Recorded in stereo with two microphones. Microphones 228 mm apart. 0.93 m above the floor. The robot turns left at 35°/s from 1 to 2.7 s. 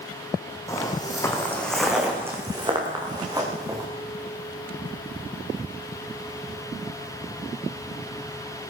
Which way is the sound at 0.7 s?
15° left (ahead or behind).